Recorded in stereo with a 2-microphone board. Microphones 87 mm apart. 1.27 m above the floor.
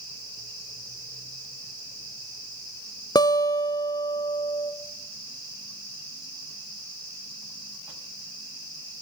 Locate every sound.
3.1 s a guitar: 45° left (ahead or behind), 0.5 m